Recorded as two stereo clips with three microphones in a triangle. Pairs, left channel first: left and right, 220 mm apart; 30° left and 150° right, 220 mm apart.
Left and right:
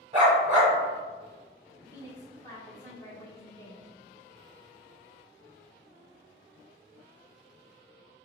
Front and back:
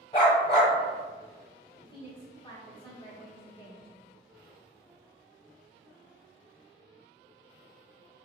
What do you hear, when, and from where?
0.1 s a dog barking: 35° right, 0.9 m
1.8 s a woman speaking: 45° left, 1.2 m